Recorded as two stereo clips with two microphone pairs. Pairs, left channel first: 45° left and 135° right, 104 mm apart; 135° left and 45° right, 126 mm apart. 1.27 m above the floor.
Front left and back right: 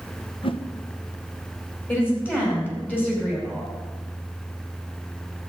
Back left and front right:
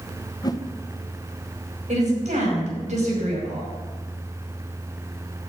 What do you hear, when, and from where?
0.4 s a whoosh: 75° left, 0.8 m
1.9 s a woman speaking: 25° right, 5 m